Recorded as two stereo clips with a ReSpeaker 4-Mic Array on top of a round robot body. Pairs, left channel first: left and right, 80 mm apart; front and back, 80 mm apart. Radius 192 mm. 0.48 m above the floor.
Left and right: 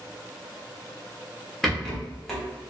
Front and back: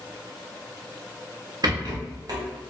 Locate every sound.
1.6 s a rattle: 175° left, 1.0 m